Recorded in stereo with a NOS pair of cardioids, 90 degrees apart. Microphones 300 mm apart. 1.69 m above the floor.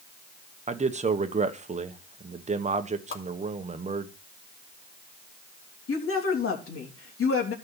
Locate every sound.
0.7 s a man speaking: 25° right, 1.4 m
3.1 s a whoosh: 45° left, 2.5 m
5.9 s a woman speaking: 45° left, 3 m